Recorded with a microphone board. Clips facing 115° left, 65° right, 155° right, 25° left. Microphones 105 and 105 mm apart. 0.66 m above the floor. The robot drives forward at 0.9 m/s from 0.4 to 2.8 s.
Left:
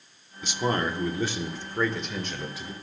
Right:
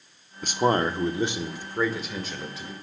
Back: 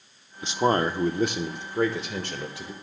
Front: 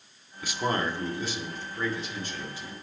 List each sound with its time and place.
0.4 s a man speaking: 95° right, 1.0 m; by 2.7 s 160° right, 2.5 m